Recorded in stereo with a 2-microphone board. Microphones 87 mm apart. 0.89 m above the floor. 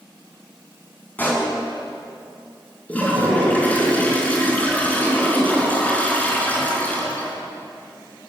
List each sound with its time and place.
1.2 s a pop: 20° left (ahead or behind), 7.5 m
2.9 s a toilet flushing: 15° left (ahead or behind), 5 m